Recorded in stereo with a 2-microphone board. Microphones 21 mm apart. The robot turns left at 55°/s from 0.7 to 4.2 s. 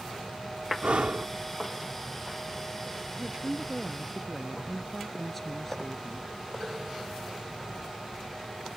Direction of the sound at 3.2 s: 135° right.